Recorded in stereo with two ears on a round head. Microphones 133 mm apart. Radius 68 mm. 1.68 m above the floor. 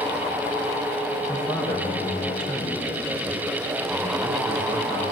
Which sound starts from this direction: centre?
A man speaking, at 1.3 s.